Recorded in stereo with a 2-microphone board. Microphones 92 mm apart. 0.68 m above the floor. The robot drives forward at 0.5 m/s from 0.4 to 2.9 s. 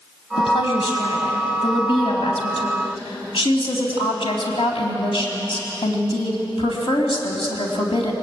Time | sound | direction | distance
0.4 | a woman speaking | 80° left | 3.5 m